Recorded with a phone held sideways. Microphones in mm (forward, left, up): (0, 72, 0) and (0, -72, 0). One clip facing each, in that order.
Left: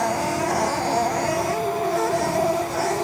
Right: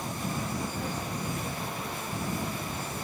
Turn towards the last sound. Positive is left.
turn(degrees=80)